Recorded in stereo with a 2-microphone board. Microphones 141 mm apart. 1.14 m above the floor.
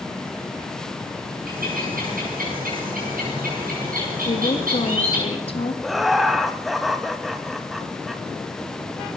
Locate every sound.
1.5 s a bird: 85° right, 8.5 m
4.2 s a woman speaking: 40° left (ahead or behind), 1.7 m
5.8 s laughter: centre (ahead or behind), 1.6 m